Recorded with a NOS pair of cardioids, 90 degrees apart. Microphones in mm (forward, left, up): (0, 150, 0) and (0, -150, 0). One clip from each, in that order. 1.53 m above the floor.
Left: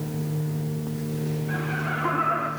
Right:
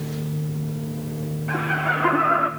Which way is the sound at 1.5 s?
55° right.